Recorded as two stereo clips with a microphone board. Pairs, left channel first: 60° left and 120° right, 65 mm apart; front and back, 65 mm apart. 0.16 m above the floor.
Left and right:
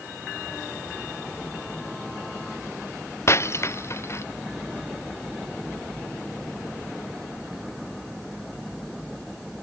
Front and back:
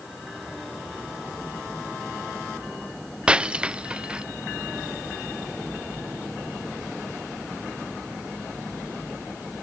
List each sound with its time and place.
3.3 s breaking glass: 105° left